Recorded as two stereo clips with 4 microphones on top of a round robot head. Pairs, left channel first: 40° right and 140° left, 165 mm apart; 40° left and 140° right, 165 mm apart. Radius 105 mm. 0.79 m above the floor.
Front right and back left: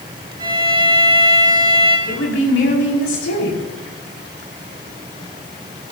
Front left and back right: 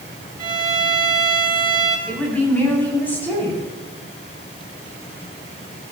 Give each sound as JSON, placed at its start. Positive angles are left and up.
{"t": 0.4, "sound": "a violin", "azimuth_deg": 180, "distance_m": 3.5}
{"t": 2.1, "sound": "a woman speaking", "azimuth_deg": -40, "distance_m": 5.0}